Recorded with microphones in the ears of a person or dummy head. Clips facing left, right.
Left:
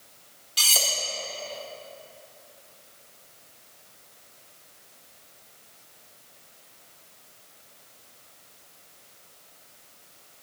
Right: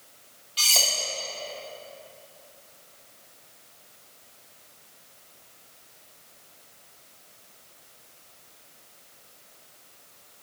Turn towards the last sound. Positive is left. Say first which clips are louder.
# even
turn(degrees=20)  # may be behind; listen again after turning